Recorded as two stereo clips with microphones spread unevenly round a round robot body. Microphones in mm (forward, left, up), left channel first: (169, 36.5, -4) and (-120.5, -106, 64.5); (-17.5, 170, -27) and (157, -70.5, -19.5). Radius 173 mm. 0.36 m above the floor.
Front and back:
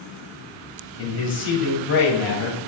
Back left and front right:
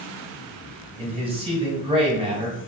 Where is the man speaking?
15° left, 1.2 m.